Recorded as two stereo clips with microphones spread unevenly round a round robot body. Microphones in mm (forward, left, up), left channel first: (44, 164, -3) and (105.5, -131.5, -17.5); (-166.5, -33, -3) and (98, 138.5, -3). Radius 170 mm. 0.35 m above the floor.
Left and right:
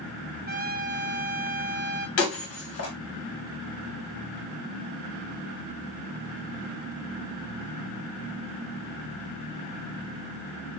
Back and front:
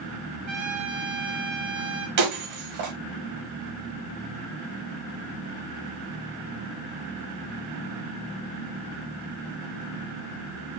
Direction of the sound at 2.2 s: 60° left.